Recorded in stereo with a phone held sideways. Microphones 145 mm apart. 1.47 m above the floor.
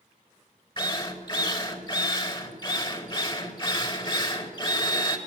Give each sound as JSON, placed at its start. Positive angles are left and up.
{"t": 0.8, "sound": "a drill", "side_deg": 35, "distance_m": 4.0}